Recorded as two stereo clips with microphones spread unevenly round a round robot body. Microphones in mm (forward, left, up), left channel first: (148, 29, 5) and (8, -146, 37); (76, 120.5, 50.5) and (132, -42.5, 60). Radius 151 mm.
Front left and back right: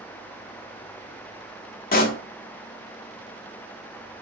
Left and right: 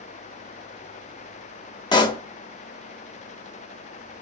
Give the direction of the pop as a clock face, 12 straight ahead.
10 o'clock.